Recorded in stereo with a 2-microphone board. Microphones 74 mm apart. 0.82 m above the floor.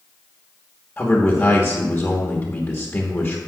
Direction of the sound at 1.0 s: 15° left (ahead or behind).